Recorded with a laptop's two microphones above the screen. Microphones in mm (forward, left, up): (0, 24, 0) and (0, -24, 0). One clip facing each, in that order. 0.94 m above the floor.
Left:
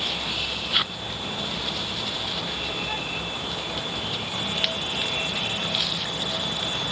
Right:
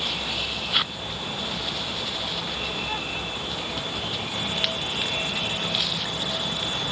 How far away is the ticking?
No ticking in this recording.